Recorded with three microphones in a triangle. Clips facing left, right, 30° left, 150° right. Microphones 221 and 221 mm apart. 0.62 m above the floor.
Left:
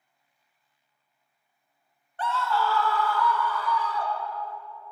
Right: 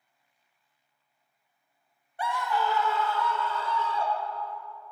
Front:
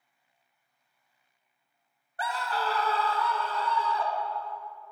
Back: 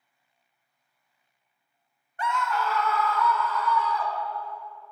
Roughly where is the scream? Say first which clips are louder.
Left 2 dB, back 3 dB; ahead.